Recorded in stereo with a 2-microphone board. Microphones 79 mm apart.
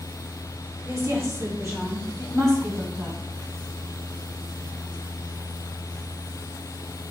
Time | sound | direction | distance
0.8 | a woman speaking | 35° right (ahead or behind) | 3 m